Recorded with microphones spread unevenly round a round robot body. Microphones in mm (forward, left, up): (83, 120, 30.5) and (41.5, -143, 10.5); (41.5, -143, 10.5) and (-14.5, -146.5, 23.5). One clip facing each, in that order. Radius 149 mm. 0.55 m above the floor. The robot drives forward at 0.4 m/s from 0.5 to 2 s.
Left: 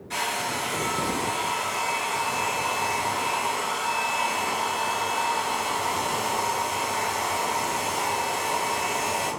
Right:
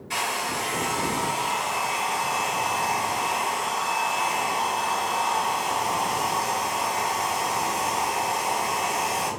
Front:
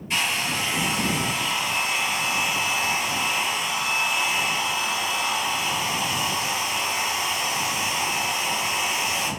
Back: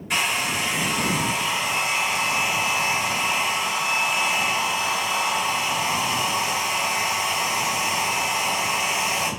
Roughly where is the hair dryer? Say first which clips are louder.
Even, back 1 dB; behind.